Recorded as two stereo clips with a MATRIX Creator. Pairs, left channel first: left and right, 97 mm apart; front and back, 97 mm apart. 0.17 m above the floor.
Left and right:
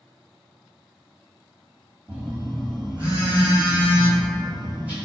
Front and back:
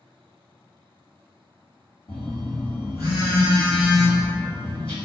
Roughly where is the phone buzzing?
Ahead.